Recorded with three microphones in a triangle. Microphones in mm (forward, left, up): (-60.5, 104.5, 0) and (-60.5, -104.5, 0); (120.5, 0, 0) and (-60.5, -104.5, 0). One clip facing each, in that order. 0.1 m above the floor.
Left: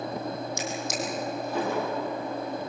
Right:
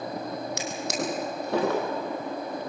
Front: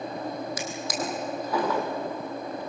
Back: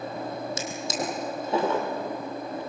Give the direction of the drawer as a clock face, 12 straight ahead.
3 o'clock.